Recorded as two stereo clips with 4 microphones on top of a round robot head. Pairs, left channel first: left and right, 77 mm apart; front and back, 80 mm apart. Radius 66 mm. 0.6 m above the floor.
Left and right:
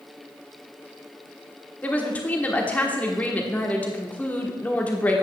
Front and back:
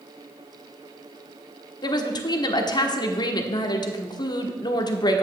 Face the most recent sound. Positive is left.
turn(degrees=20)